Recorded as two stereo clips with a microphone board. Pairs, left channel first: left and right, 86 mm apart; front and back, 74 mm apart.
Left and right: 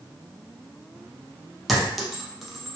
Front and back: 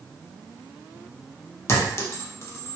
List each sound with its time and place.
1.7 s a clink: 5° right, 0.5 m